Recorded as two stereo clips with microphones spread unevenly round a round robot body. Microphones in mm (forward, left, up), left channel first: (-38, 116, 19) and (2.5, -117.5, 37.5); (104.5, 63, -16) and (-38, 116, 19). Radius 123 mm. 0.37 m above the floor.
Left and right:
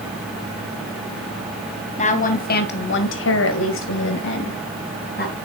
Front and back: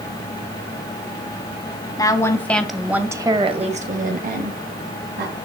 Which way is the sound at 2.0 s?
40° left.